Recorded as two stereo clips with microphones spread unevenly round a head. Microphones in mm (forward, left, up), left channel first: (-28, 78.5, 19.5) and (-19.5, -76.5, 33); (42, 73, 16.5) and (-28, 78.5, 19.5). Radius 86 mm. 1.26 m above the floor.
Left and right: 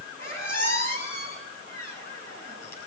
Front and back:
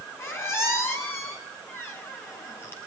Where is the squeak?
50° left, 9.5 m.